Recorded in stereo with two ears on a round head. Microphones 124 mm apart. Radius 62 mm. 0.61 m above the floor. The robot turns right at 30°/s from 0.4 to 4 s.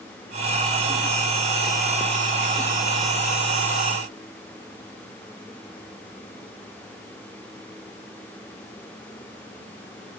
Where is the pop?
No pop in this recording.